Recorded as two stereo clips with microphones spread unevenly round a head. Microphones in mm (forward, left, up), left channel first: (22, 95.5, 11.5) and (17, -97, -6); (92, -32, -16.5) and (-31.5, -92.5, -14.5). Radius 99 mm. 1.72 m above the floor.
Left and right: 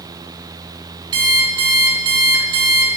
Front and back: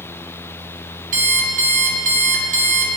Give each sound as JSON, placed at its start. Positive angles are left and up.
{"t": 1.1, "sound": "an alarm clock", "azimuth_deg": -160, "distance_m": 2.0}